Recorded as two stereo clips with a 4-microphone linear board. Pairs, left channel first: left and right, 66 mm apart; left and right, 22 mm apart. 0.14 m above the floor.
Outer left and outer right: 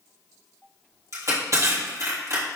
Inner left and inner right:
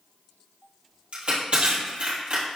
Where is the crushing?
60° right (ahead or behind), 3.5 m.